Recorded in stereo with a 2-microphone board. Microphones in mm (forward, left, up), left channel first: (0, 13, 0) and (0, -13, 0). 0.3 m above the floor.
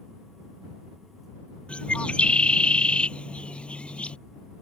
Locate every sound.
1.7 s a bird: 40° left (ahead or behind)